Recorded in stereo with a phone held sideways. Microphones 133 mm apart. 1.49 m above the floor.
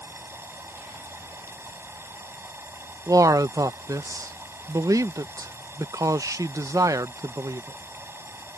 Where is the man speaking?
25° right (ahead or behind).